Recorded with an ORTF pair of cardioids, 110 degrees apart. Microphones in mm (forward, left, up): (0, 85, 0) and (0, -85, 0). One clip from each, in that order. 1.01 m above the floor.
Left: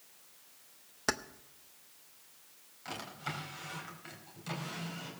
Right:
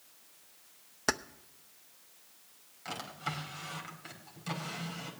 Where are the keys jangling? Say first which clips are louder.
Right 2 dB; 10° right, 0.6 m.